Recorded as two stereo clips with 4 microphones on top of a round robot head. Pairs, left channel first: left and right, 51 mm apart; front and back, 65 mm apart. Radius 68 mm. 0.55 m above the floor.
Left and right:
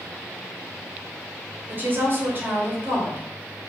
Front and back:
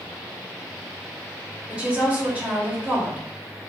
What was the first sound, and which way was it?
A woman speaking, 110° right.